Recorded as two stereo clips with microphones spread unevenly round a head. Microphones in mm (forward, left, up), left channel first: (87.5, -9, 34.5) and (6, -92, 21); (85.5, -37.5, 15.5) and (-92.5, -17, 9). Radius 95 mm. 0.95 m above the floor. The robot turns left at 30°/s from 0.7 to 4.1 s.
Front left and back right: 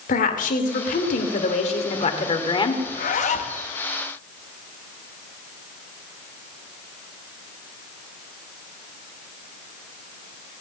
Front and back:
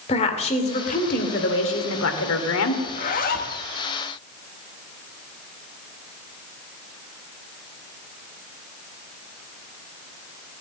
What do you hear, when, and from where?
0.1 s a woman speaking: 55° left, 2.5 m; by 2.8 s 10° right, 2.5 m
2.9 s a zipper: 50° left, 1.4 m; by 3.6 s 30° left, 1.4 m